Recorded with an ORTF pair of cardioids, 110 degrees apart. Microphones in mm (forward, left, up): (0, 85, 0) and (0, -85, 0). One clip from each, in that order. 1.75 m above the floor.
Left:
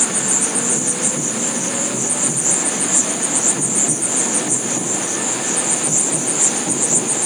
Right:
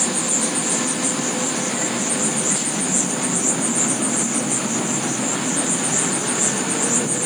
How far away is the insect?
About 1.5 m.